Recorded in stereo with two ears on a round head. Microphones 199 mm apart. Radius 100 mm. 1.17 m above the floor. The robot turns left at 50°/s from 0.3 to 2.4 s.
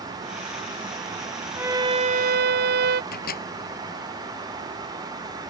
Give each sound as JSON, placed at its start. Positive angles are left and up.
{"t": 1.6, "sound": "a violin", "azimuth_deg": -10}
{"t": 3.1, "sound": "a microwave", "side_deg": 45}